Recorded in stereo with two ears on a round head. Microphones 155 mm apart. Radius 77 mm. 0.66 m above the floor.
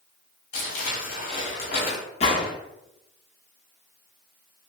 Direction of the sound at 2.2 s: 35° left (ahead or behind).